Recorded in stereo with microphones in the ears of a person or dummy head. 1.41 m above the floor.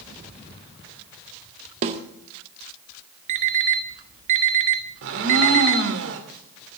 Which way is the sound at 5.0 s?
70° right (ahead or behind).